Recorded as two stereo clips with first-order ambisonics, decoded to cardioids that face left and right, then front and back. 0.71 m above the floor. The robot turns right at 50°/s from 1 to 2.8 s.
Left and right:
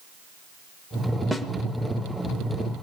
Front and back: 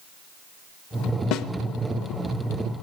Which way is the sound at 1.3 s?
Straight ahead.